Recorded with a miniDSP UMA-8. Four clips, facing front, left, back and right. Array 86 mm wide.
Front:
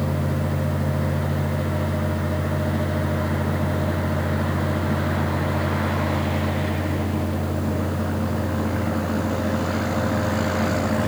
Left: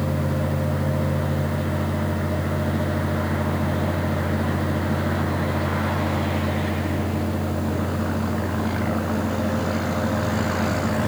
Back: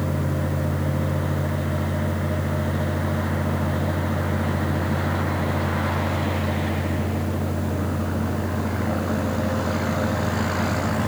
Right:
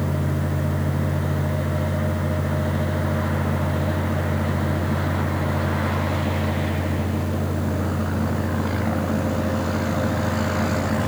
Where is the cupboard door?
No cupboard door in this recording.